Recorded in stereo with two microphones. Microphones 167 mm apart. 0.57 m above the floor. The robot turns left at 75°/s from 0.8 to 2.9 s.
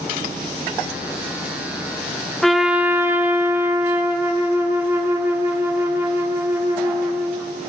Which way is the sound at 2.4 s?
5° left (ahead or behind).